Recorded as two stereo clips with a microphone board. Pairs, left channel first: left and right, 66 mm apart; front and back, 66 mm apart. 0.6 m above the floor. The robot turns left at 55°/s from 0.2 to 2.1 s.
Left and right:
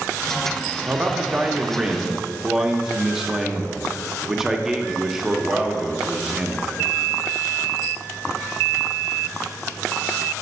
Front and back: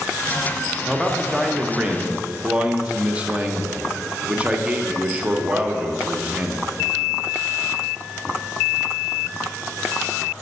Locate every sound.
0.9 s a man speaking: 95° right, 0.6 m; by 6.6 s 165° right, 0.6 m